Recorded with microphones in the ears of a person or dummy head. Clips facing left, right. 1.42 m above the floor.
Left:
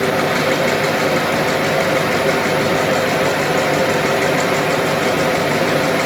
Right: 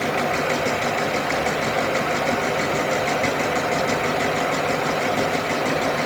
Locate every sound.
0.0 s a fan: 70° left (ahead or behind), 2.5 m